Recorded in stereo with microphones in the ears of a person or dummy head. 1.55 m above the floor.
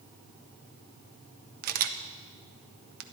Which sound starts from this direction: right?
A camera shutter, at 1.6 s.